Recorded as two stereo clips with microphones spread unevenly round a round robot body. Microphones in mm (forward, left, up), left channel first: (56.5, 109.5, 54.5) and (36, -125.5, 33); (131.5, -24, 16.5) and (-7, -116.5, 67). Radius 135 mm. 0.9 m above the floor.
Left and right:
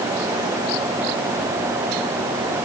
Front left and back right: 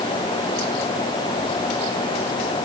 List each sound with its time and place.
Only background noise.